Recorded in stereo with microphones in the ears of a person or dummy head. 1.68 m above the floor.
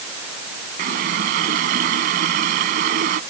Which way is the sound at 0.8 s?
45° right (ahead or behind).